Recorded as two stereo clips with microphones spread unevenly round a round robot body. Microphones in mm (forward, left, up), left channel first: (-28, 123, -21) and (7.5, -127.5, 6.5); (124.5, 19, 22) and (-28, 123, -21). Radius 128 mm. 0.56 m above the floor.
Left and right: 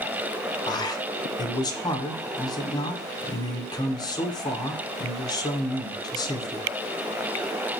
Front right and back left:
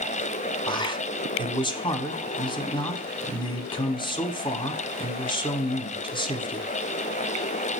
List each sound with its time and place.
0.7 s a man speaking: 35° left, 1.3 m